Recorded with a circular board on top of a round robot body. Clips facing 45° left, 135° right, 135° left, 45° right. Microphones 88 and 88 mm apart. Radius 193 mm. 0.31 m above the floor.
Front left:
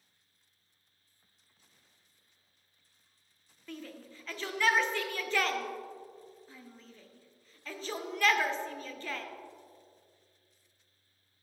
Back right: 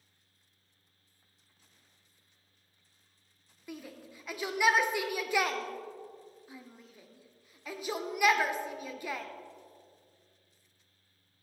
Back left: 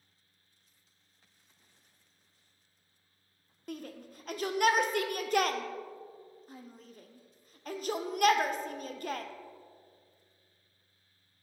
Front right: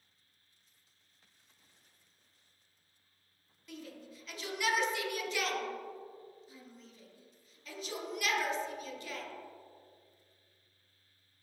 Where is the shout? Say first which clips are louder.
Even, back left 5 dB; 150° left, 1.2 m.